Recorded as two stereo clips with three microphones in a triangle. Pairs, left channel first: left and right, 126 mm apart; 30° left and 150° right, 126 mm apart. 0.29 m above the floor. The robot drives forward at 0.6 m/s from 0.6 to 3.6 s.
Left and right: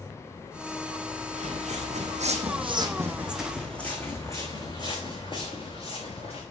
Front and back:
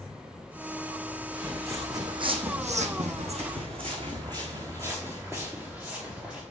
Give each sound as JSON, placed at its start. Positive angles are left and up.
{"t": 1.3, "sound": "footsteps", "azimuth_deg": -75, "distance_m": 1.7}